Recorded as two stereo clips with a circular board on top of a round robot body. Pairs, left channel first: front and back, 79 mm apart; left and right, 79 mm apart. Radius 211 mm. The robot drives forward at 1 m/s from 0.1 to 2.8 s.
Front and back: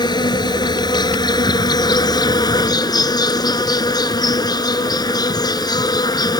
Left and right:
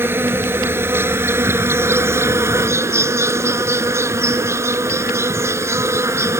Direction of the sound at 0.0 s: 25° right.